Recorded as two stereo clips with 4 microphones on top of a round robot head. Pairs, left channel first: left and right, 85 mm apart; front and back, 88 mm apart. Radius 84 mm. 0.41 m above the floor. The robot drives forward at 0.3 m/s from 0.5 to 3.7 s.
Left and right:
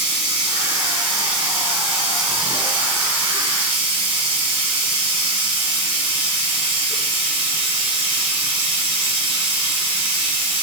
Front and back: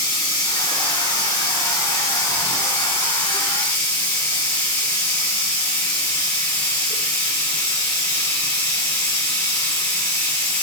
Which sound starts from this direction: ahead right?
Running water, at 0.0 s.